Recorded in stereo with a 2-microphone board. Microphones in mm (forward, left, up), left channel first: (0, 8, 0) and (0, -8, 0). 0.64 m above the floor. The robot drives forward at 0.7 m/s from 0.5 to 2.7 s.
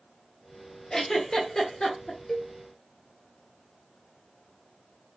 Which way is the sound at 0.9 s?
55° left (ahead or behind).